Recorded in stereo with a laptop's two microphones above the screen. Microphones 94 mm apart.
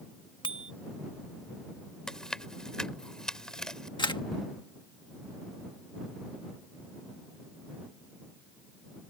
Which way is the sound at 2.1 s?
5° left (ahead or behind).